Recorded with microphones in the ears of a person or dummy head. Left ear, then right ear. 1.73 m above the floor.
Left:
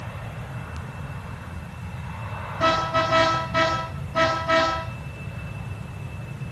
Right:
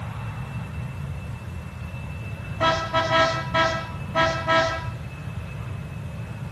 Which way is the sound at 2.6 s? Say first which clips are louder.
Left 1 dB; 20° right (ahead or behind).